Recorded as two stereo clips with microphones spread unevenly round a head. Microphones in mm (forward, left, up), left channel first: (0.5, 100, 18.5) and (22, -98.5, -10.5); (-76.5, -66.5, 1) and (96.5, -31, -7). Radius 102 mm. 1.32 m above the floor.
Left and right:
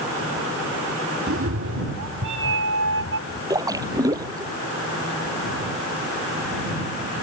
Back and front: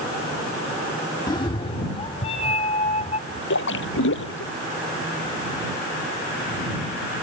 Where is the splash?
160° right.